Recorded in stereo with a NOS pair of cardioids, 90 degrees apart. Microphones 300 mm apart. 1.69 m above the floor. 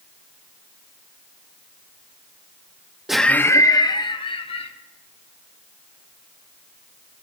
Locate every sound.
3.1 s laughter: straight ahead, 0.6 m; by 4.7 s 20° left, 1.9 m